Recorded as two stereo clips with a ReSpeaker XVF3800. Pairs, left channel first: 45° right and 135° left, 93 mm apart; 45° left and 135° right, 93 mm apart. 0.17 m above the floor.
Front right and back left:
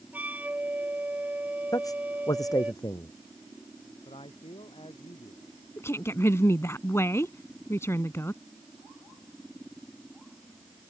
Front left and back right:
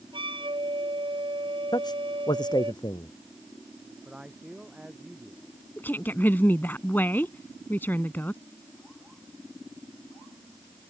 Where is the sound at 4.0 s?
50° right.